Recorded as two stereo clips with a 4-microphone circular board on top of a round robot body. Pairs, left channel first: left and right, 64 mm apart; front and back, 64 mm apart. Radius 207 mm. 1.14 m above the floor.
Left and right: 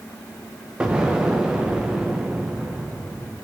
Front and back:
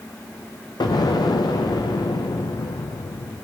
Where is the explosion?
15° right, 0.6 m.